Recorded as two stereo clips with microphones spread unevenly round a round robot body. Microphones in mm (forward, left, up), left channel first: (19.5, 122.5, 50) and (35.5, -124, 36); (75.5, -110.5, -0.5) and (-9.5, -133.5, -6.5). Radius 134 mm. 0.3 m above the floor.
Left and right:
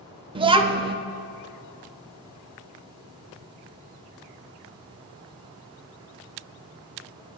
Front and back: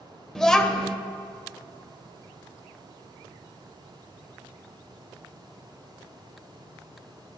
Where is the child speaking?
70° right, 0.5 m.